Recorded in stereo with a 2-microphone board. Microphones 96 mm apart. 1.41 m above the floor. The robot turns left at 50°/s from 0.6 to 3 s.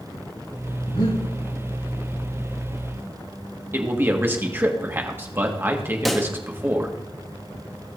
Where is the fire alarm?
No fire alarm in this recording.